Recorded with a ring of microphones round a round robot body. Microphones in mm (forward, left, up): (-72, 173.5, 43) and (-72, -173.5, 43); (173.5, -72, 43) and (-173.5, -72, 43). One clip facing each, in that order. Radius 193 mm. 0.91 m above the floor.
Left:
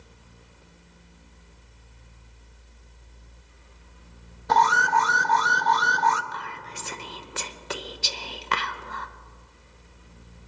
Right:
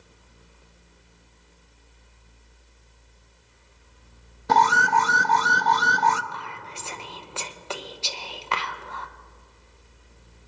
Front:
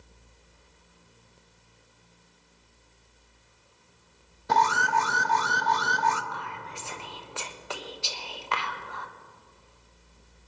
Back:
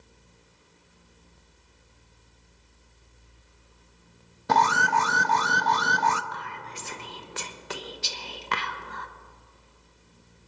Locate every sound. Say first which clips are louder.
4.5 s an alarm: right 2 dB, back 2 dB; 150° right, 0.6 m
6.3 s whispering: even, even; 135° left, 0.7 m